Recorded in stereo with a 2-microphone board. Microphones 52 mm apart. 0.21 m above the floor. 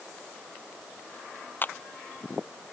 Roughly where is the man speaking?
I don't hear a man speaking.